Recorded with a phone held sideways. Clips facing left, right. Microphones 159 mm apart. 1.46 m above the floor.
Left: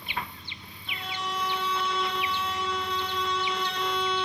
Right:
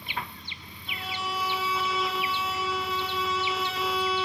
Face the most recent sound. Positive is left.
turn(degrees=-5)  # may be behind; listen again after turning